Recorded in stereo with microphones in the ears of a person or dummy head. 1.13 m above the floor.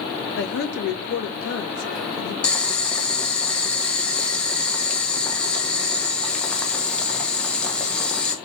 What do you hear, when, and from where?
0.4 s a woman speaking: 60° left (ahead or behind), 1.3 m
2.4 s boiling: 5° left (ahead or behind), 0.9 m